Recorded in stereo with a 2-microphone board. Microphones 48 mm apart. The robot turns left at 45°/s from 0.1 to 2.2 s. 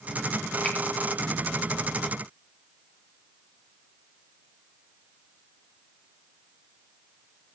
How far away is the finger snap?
About 2.5 m.